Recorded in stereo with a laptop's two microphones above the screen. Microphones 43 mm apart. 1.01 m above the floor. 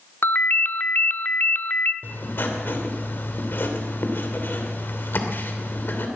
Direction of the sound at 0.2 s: 45° left (ahead or behind).